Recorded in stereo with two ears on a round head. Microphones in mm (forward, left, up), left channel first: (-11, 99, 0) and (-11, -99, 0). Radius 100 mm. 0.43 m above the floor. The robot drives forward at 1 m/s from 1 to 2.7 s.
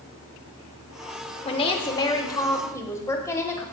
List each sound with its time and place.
1.4 s a woman speaking: 25° left (ahead or behind), 1.0 m; by 3.6 s 15° left (ahead or behind), 1.8 m